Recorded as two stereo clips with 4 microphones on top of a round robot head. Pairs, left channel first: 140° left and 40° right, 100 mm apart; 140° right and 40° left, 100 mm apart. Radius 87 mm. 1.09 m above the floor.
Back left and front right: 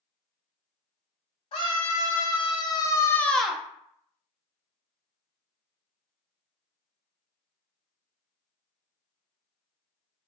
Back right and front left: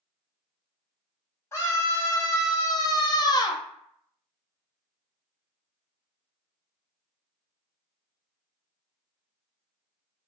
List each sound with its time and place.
1.5 s a scream: 160° left, 1.4 m; by 3.6 s 110° right, 0.5 m